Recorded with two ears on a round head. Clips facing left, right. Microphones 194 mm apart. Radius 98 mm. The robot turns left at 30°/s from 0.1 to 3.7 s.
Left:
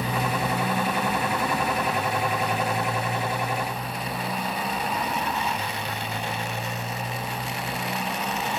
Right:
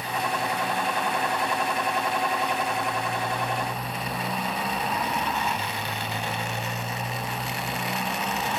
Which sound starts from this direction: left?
A motorcycle, at 0.0 s.